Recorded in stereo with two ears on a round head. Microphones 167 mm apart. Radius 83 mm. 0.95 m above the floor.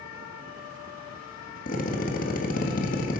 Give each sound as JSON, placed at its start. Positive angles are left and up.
{"t": 1.7, "sound": "a drill", "side_deg": 45, "distance_m": 1.8}